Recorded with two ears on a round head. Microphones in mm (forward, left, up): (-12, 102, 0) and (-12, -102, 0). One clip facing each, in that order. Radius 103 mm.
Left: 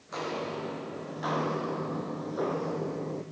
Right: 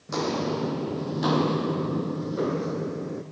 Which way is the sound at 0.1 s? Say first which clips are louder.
Right 8 dB; 60° right (ahead or behind).